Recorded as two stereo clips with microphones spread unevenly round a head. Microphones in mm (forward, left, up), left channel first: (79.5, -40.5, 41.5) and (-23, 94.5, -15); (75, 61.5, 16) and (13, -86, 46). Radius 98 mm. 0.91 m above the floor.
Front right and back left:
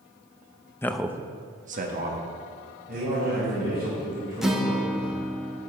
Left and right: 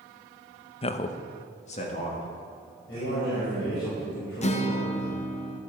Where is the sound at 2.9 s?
90° left, 5 m.